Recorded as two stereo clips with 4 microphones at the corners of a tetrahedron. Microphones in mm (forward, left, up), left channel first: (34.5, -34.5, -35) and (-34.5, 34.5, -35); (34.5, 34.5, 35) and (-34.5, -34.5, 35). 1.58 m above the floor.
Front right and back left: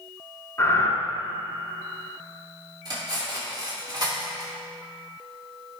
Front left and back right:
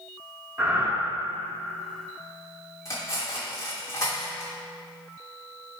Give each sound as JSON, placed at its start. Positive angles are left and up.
{"t": 0.6, "sound": "breathing", "azimuth_deg": -85, "distance_m": 1.4}
{"t": 2.9, "sound": "cutlery clinking", "azimuth_deg": 95, "distance_m": 2.5}